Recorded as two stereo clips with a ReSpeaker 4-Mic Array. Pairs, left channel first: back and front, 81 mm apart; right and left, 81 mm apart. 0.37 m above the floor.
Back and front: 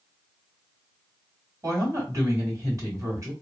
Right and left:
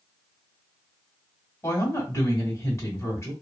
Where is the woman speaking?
40° right, 2 m.